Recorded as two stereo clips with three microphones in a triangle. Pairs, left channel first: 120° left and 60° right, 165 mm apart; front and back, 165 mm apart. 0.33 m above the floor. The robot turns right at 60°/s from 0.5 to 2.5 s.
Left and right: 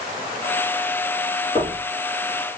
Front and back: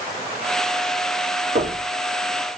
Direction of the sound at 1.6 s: 175° left.